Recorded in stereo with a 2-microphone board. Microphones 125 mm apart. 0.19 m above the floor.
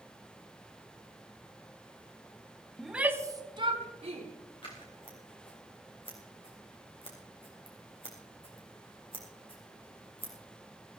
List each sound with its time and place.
2.8 s a shout: 5° left (ahead or behind), 1.1 m; by 4.3 s 55° right (ahead or behind), 2 m
4.6 s scissors: 40° left (ahead or behind), 3.5 m